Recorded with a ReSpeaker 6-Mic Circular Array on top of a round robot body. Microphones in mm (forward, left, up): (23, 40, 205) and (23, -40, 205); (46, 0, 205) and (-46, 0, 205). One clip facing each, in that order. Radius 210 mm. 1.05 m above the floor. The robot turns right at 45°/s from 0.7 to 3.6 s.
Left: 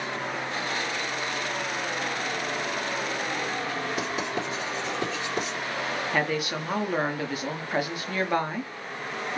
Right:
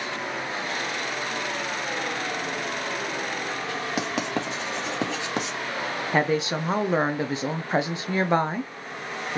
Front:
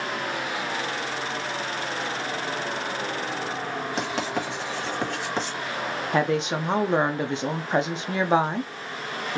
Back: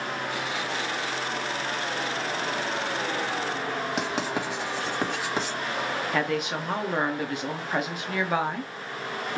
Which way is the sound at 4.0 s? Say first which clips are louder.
Right 2 dB, front 1 dB; 100° right.